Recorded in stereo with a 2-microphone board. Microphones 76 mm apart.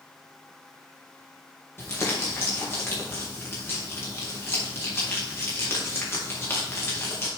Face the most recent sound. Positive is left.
turn(degrees=30)  # may be behind; listen again after turning